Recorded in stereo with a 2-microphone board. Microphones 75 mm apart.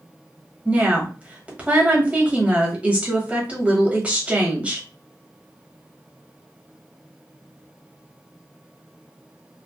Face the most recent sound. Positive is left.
turn(degrees=-20)  # may be behind; listen again after turning